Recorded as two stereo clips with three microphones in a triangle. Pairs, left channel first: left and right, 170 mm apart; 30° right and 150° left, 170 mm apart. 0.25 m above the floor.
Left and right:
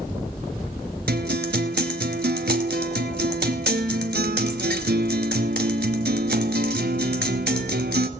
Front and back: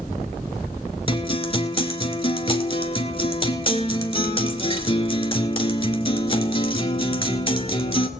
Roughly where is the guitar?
Right.